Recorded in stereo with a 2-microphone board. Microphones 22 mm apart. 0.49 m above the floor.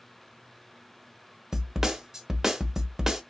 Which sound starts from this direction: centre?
A snare drum, at 1.5 s.